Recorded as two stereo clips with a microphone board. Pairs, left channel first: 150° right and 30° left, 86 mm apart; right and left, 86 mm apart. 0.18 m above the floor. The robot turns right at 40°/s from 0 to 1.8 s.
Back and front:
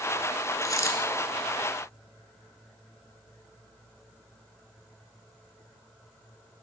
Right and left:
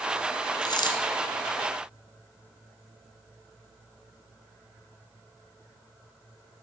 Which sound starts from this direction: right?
A dropped coin, at 0.6 s.